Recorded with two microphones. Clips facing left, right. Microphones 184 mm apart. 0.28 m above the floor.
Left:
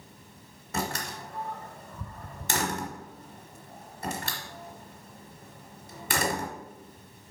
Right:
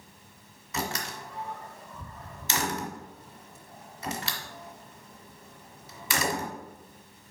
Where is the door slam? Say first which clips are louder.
Left 1 dB; 55° left (ahead or behind), 1.5 m.